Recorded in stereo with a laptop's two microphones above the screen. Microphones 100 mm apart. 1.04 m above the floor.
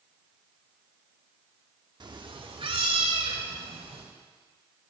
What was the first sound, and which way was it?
A cat meowing, 45° right (ahead or behind).